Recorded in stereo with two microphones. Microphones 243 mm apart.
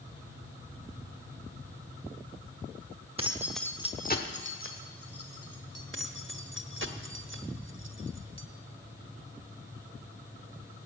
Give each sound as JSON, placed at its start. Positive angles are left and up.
{"t": 3.2, "sound": "keys jangling", "side_deg": -25, "distance_m": 1.0}
{"t": 5.9, "sound": "keys jangling", "side_deg": -55, "distance_m": 1.0}